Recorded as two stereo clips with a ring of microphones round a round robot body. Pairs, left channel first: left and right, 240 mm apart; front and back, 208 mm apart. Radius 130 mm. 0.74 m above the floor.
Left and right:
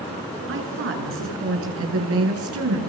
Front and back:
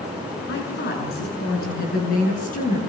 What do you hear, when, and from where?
0.5 s a woman speaking: 50° right, 8.5 m; by 2.8 s 60° right, 8.5 m